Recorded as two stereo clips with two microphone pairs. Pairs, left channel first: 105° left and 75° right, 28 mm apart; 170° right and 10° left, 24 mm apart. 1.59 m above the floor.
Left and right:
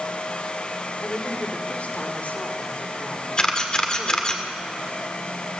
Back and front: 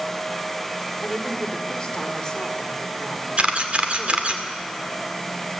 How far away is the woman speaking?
About 3.5 m.